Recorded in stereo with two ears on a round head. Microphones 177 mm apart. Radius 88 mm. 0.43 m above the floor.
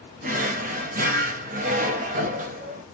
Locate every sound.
0.2 s a drawer: 40° right (ahead or behind), 0.6 m